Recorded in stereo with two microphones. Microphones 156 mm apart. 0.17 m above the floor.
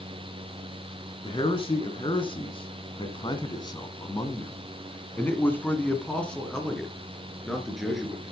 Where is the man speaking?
35° left (ahead or behind), 2 m; by 8.3 s 5° right (ahead or behind), 3 m.